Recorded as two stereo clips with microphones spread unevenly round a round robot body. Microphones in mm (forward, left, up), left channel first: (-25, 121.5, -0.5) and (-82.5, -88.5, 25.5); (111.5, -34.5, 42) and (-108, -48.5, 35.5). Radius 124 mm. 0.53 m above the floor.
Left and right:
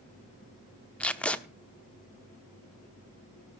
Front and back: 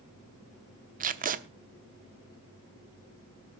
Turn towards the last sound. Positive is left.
turn(degrees=150)